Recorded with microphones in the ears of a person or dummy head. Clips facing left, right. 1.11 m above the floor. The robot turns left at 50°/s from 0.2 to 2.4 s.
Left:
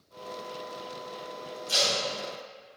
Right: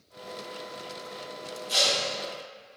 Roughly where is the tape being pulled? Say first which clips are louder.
Right 1 dB; left.